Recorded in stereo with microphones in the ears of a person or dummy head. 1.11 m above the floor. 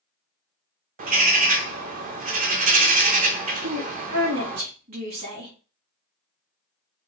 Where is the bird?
35° right (ahead or behind), 0.8 m.